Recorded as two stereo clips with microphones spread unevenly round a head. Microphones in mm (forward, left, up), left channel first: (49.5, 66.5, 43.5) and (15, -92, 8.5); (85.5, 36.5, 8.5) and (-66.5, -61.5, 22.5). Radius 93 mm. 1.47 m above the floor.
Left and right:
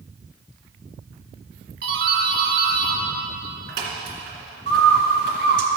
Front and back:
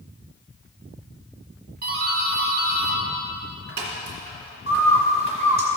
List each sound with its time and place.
1.8 s a doorbell: 115° right, 2 m
4.7 s a bird: 115° right, 1.2 m